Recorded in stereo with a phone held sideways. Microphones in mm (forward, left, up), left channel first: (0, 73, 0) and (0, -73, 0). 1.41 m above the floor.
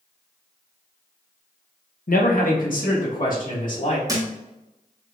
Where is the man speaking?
75° left (ahead or behind), 1.1 m; by 4.0 s 70° left (ahead or behind), 3 m.